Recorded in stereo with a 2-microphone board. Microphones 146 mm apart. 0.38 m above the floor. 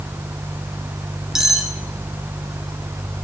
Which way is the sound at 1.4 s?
5° right (ahead or behind).